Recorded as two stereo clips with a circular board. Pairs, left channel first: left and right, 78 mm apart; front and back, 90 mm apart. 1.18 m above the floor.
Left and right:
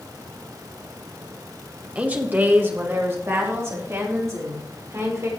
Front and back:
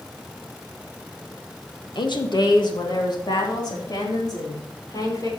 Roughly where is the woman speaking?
Ahead.